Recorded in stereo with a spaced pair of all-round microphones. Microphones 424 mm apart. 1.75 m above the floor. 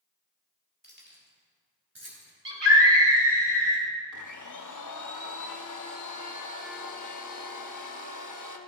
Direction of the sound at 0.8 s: 25° right (ahead or behind).